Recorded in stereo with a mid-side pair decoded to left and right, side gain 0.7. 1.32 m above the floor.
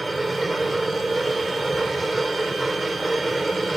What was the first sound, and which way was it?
A machine running, 10° right.